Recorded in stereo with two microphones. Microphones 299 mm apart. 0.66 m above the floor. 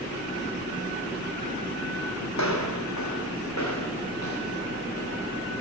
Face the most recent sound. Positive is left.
turn(degrees=60)  # may be behind; listen again after turning